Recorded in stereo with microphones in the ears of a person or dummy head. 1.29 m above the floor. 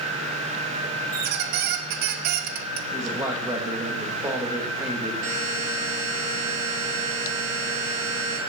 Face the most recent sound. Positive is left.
turn(degrees=-40)  # may be behind; listen again after turning